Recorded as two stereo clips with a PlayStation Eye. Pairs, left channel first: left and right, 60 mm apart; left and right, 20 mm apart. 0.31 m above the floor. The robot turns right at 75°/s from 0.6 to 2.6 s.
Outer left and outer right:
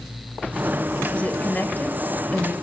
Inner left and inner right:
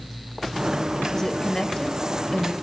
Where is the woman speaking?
20° left (ahead or behind), 1.6 m; by 2.5 s 15° left (ahead or behind), 1.6 m.